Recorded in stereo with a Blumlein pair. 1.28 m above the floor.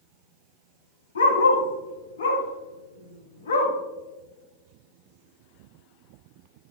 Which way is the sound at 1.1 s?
70° left.